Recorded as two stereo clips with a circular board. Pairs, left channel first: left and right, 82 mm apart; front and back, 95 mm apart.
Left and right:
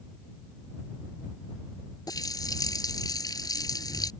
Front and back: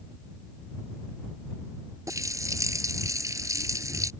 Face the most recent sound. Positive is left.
turn(degrees=125)